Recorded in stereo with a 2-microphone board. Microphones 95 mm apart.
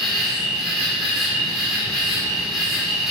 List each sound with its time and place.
0.0 s an insect: 5° right (ahead or behind), 1.5 m